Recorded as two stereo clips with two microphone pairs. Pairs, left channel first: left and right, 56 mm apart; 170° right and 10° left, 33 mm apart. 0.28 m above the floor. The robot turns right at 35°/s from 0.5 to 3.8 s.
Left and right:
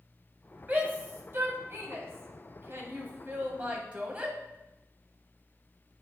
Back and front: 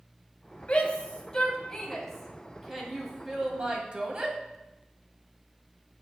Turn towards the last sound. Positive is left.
turn(degrees=-30)